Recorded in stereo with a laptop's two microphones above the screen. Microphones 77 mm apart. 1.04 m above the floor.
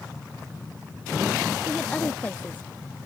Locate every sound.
1.6 s a woman speaking: 15° left (ahead or behind); by 2.7 s 25° left (ahead or behind)